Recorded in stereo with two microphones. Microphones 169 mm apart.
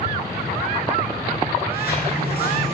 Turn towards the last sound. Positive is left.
turn(degrees=70)  # may be behind; listen again after turning